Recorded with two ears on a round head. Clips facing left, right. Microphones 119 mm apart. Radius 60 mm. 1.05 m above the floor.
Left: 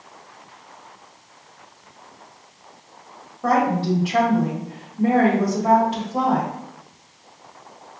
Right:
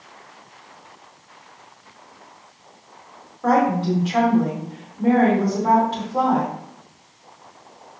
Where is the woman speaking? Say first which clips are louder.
Right 1 dB; 10° left (ahead or behind), 1.7 m.